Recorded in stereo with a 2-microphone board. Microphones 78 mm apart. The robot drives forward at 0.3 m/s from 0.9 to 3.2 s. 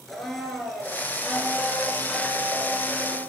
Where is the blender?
5° left (ahead or behind), 2 m; by 3.2 s centre (ahead or behind), 3 m.